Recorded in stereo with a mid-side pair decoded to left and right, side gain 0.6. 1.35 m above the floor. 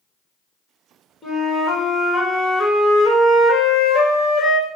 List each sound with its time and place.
1.2 s a flute: 25° left, 1.5 m